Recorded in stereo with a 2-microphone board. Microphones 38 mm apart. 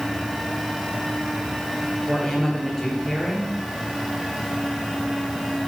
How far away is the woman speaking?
About 5 m.